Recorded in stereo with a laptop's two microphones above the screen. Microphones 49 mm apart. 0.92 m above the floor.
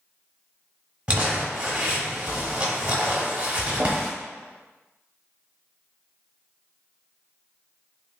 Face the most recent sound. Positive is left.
turn(degrees=-25)  # may be behind; listen again after turning